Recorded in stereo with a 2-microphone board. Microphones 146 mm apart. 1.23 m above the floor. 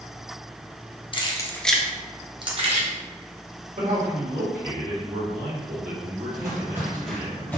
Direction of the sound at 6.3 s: 30° right (ahead or behind).